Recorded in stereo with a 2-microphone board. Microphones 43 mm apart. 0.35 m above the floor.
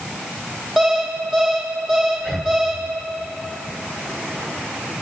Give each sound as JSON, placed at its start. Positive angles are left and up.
{"t": 0.8, "sound": "an alarm clock", "side_deg": 0, "distance_m": 5.5}
{"t": 2.2, "sound": "breathing", "side_deg": 5, "distance_m": 1.9}